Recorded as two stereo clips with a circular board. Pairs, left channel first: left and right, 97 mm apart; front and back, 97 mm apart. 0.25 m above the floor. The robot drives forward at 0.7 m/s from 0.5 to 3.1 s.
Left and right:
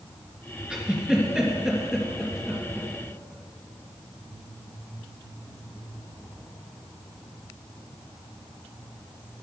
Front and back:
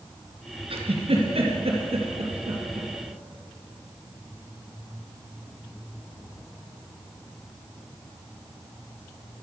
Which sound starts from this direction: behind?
A giggle, at 0.7 s.